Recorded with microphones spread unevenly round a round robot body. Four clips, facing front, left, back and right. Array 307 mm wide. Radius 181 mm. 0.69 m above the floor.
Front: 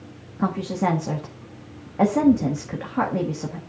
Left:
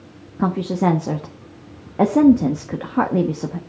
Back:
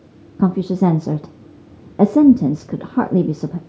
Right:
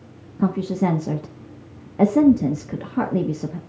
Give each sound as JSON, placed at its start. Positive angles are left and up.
{"t": 0.4, "sound": "a woman speaking", "azimuth_deg": 170, "distance_m": 0.7}